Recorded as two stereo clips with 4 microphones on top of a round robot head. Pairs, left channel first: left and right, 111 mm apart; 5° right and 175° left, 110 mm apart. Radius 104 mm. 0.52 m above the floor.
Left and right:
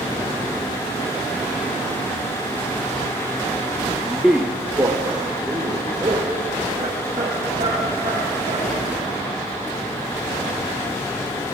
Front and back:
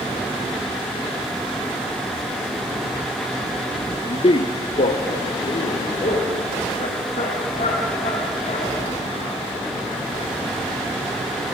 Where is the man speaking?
15° left, 1.1 m; by 8.7 s 40° right, 5.5 m.